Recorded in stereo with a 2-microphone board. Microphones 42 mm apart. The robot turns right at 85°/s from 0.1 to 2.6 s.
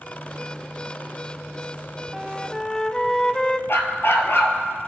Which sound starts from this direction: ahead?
A flute, at 2.1 s.